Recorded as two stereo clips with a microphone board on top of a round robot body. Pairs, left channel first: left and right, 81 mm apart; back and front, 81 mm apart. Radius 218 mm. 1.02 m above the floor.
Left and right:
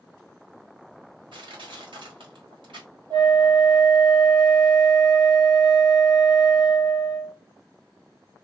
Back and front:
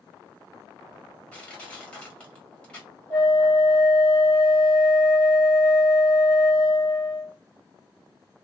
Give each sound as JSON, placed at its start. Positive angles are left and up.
{"t": 1.3, "sound": "crushing", "azimuth_deg": -100, "distance_m": 1.9}
{"t": 3.1, "sound": "a flute", "azimuth_deg": -60, "distance_m": 1.6}